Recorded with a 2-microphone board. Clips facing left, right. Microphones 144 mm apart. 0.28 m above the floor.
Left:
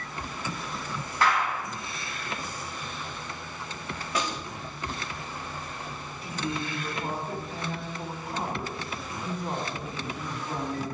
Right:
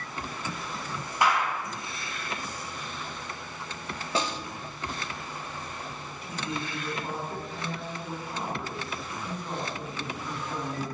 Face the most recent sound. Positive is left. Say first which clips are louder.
# left 2 dB
turn(degrees=45)  # may be behind; listen again after turning